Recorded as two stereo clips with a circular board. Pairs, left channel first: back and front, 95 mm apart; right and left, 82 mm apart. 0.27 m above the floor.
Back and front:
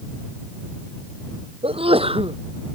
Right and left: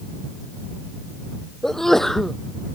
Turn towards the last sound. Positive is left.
turn(degrees=-5)